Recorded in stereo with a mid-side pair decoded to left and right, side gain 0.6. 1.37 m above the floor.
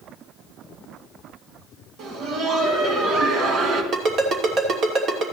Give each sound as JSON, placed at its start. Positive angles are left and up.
{"t": 2.0, "sound": "laughter", "azimuth_deg": -65, "distance_m": 3.0}
{"t": 3.9, "sound": "a ringtone", "azimuth_deg": -55, "distance_m": 2.5}